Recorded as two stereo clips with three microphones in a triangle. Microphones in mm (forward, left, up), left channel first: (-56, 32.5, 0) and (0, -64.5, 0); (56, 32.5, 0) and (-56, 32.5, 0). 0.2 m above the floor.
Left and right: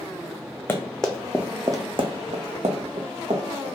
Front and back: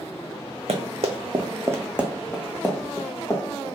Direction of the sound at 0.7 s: 165° right.